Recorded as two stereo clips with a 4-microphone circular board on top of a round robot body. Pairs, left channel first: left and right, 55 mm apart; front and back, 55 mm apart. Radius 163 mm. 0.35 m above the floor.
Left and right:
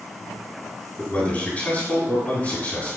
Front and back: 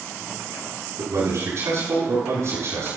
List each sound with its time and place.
1.0 s a man speaking: 155° left, 7 m